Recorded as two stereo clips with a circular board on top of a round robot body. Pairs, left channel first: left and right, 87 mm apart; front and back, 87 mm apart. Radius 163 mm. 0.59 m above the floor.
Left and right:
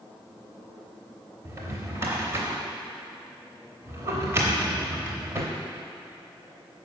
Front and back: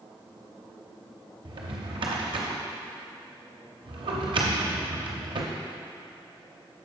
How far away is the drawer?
About 0.6 m.